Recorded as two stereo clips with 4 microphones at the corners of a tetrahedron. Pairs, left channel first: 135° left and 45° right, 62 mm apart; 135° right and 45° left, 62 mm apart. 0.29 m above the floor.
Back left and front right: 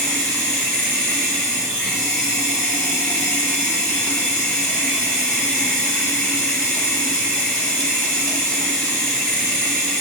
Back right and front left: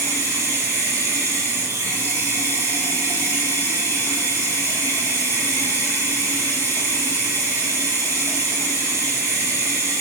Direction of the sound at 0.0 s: 70° left.